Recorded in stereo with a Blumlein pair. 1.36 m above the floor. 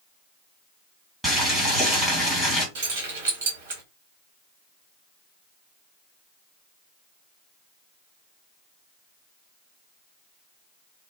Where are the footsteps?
No footsteps in this recording.